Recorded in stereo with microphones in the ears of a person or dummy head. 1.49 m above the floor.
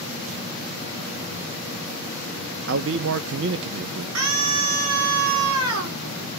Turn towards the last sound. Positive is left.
turn(degrees=-85)